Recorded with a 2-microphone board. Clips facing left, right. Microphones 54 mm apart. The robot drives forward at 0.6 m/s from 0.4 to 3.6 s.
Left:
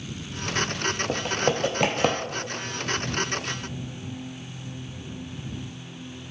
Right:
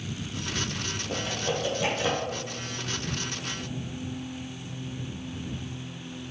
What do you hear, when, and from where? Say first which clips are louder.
1.1 s typing on a keyboard: left 3 dB; 60° left (ahead or behind), 1.3 m; by 2.2 s 65° left (ahead or behind), 1.3 m